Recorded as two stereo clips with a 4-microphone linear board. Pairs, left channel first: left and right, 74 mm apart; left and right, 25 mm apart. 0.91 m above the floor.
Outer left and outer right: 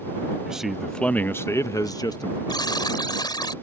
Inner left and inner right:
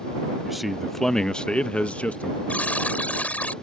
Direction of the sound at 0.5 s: 10° right (ahead or behind).